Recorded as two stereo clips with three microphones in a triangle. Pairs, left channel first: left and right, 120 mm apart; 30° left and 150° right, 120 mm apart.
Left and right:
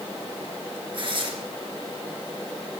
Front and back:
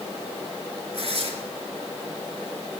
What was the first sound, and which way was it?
Tearing paper, 130° right.